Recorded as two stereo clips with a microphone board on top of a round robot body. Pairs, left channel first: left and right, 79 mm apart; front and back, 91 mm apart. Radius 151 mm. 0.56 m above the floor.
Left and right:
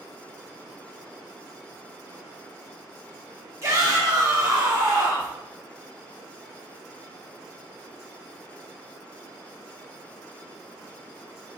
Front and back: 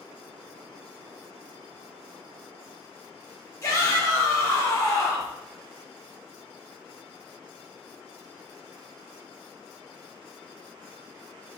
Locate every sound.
3.6 s a shout: 50° right, 0.9 m